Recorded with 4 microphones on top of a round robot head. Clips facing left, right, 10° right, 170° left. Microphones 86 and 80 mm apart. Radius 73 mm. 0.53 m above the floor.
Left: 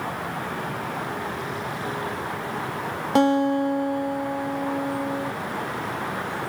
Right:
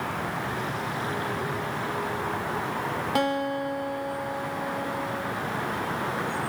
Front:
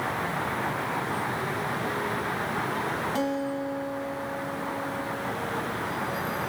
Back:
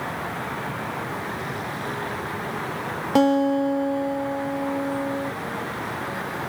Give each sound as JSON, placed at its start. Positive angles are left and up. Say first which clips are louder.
{"t": 3.1, "sound": "a guitar", "louder": "left 9 dB, back 15 dB", "azimuth_deg": 150, "distance_m": 0.7}